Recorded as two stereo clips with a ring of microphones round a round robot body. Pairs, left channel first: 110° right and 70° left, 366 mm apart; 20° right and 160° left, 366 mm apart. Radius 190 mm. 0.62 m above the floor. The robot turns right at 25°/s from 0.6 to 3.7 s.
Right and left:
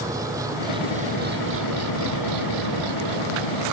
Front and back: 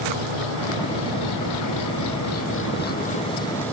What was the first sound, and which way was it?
An engine running, 15° right.